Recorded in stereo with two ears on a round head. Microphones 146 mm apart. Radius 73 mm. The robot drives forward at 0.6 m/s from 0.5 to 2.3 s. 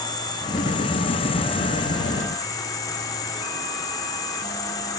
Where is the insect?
25° left (ahead or behind), 0.8 m; by 5.0 s 20° left (ahead or behind), 0.8 m.